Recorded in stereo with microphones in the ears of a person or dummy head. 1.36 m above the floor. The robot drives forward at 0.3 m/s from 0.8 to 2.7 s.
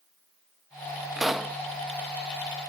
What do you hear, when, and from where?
1.2 s a pop: 5° right (ahead or behind)